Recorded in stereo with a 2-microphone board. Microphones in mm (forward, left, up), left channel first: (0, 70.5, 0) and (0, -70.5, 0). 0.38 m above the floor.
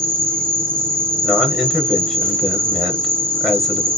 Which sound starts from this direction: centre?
A man speaking, at 1.2 s.